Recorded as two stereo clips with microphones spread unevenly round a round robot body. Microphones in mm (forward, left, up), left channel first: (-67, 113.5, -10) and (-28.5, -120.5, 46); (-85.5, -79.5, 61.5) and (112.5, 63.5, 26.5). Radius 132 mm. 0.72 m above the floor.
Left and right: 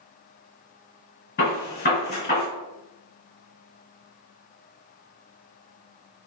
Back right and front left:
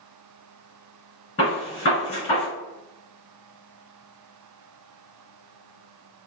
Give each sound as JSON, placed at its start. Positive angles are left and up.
{"t": 1.4, "sound": "a gunshot", "azimuth_deg": 150, "distance_m": 1.8}